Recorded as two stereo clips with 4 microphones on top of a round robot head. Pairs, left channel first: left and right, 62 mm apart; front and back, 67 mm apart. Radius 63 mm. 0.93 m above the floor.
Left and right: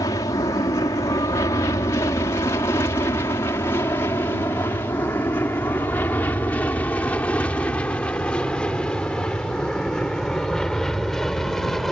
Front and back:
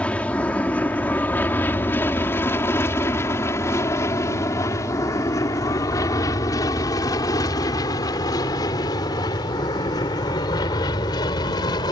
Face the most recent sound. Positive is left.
turn(degrees=5)